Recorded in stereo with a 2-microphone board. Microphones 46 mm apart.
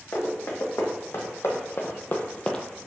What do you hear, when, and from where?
0.1 s running footsteps: 65° left (ahead or behind), 1.6 m; by 2.6 s 15° left (ahead or behind), 0.6 m